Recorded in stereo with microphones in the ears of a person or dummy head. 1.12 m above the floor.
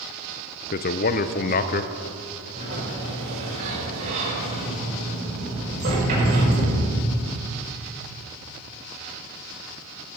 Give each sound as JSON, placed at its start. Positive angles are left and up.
{"t": 0.7, "sound": "a man speaking", "side_deg": 40, "distance_m": 0.5}
{"t": 2.5, "sound": "a sliding door", "side_deg": -40, "distance_m": 5.0}